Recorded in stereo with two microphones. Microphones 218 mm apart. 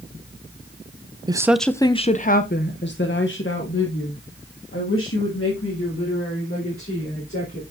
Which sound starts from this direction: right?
A woman speaking, at 1.3 s.